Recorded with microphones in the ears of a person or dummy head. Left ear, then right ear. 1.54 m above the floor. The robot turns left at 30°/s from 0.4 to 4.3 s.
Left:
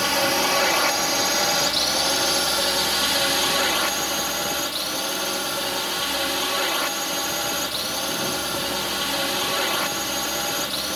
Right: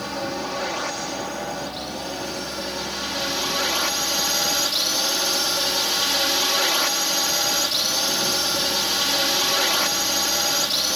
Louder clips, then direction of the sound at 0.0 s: Left 7 dB; 115° left.